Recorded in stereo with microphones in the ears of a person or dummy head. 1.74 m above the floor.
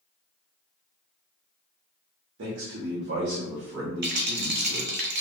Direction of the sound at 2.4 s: 70° right (ahead or behind).